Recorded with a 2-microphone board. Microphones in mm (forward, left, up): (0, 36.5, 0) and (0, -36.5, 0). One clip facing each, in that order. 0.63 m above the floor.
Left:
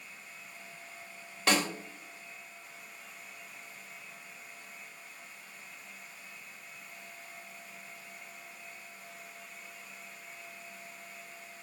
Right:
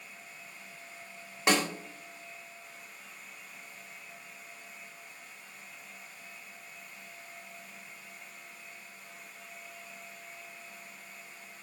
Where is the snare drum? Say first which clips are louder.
Right 1 dB; 20° right (ahead or behind), 1.5 m.